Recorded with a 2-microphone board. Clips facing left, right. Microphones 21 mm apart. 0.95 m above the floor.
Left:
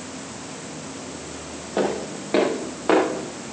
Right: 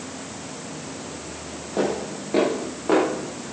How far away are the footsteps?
About 6 m.